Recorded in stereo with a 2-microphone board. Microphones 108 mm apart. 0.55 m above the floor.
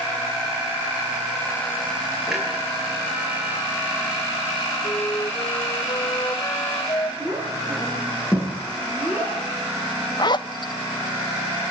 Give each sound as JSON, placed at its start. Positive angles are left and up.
{"t": 2.3, "sound": "a clunk", "side_deg": 0, "distance_m": 10.0}
{"t": 4.8, "sound": "a flute", "side_deg": 35, "distance_m": 1.4}
{"t": 7.2, "sound": "a child speaking", "side_deg": -10, "distance_m": 7.5}
{"t": 10.2, "sound": "a zipper", "side_deg": 45, "distance_m": 0.5}